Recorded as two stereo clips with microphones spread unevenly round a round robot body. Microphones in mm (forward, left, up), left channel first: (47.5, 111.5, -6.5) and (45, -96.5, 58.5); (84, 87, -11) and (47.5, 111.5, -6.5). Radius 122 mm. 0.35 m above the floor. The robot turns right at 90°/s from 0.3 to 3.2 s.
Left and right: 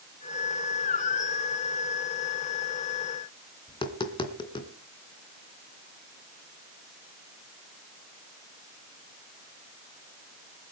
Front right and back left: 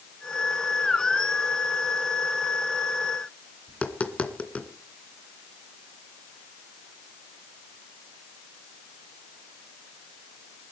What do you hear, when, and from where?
3.7 s tapping: 25° left, 2.5 m